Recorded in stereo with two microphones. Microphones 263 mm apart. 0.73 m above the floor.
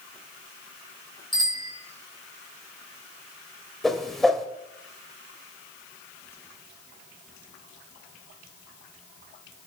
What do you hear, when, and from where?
1.3 s a bicycle bell: 15° left (ahead or behind), 7.5 m
3.8 s a whoosh: centre (ahead or behind), 1.3 m